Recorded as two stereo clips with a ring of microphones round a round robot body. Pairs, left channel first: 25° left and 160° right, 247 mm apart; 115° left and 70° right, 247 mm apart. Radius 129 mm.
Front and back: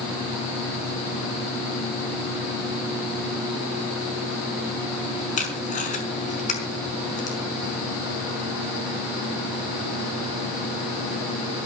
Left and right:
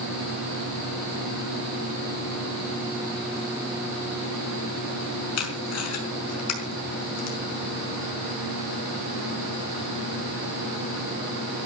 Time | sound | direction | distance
5.4 | tape being pulled | 85° left | 5 m